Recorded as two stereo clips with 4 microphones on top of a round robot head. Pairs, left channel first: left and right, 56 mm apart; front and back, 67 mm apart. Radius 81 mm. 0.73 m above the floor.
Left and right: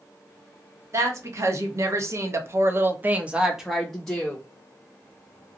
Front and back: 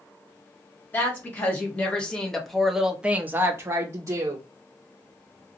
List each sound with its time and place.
0.9 s a woman speaking: 60° right, 1.4 m; by 4.4 s 160° left, 0.9 m